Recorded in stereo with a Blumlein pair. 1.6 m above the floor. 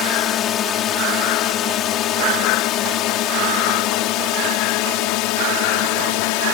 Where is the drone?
25° left; by 6.5 s 45° left.